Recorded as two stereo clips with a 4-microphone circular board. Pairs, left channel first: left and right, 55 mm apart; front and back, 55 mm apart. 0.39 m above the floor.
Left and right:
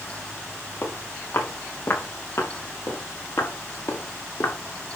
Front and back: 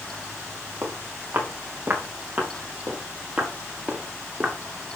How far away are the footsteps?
About 4 m.